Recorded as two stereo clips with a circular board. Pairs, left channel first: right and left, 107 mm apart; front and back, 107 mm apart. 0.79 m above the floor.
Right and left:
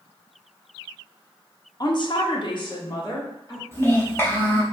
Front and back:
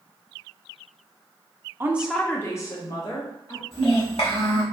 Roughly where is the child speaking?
Ahead right.